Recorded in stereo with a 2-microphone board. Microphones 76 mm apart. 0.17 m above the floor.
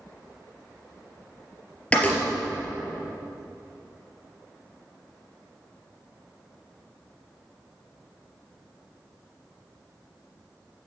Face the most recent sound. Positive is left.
turn(degrees=15)  # may be behind; listen again after turning